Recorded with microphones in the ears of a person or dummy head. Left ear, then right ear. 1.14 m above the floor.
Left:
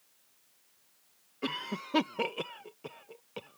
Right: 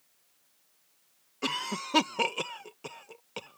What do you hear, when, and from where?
1.4 s a cough: 20° right (ahead or behind)